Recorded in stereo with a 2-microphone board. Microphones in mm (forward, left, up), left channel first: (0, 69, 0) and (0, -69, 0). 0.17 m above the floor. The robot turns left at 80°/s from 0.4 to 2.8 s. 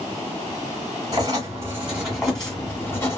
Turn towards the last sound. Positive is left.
turn(degrees=20)  # may be behind; listen again after turning